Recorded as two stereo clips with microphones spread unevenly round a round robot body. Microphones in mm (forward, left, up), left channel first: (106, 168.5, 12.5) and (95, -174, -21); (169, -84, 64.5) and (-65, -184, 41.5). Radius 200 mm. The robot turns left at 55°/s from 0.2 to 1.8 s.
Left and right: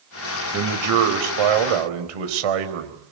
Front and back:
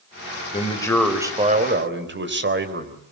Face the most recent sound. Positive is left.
turn(degrees=-110)